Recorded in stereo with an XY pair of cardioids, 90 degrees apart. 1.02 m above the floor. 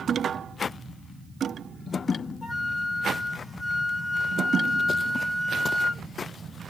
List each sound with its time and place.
2.4 s a flute: 40° left, 1.9 m